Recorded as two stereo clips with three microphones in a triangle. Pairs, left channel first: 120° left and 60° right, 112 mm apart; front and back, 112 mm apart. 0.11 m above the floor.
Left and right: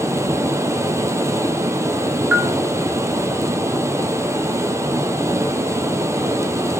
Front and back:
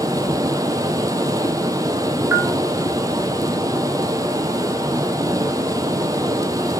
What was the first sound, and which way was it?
Running water, 125° right.